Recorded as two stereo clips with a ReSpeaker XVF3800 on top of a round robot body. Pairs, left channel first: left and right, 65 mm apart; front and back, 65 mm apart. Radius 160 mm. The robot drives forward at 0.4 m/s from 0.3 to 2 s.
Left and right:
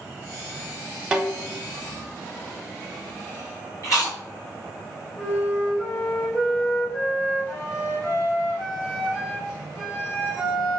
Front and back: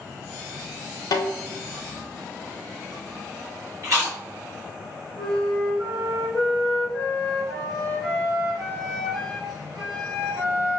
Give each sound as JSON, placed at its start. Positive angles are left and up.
{"t": 1.1, "sound": "a snare drum", "azimuth_deg": -15, "distance_m": 0.5}
{"t": 3.8, "sound": "chewing", "azimuth_deg": 135, "distance_m": 1.6}
{"t": 5.2, "sound": "a flute", "azimuth_deg": 150, "distance_m": 1.9}